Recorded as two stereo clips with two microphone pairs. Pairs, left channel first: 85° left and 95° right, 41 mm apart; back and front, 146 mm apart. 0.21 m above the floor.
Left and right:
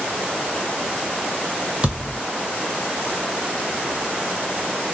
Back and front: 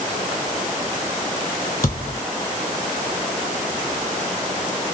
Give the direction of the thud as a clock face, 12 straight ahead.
5 o'clock.